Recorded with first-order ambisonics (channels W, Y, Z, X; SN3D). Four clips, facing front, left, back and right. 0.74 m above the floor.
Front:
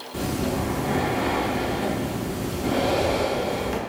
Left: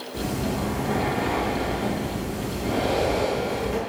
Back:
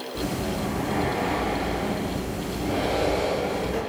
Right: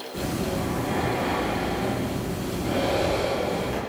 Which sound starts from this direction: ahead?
Breathing, at 0.1 s.